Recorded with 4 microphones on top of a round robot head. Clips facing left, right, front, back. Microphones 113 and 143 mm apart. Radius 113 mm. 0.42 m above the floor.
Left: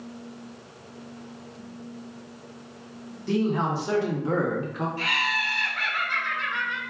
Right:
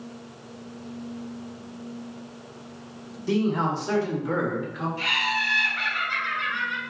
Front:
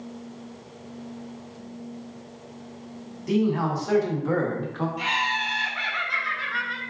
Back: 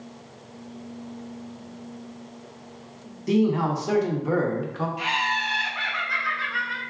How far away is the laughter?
About 1.4 m.